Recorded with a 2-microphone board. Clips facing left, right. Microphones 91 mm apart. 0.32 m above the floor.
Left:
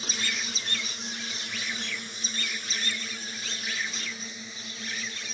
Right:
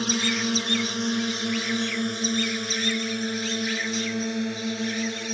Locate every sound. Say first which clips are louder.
0.0 s a drone: right 10 dB; 60° right (ahead or behind)